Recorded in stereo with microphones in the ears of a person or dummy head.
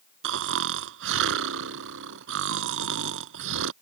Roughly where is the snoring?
Right.